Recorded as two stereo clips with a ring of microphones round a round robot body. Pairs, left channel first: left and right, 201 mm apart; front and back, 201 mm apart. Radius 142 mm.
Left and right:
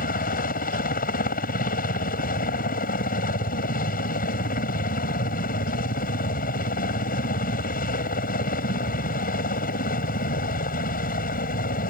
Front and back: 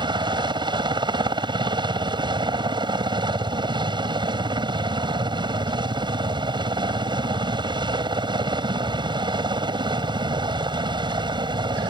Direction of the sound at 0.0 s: 120° left.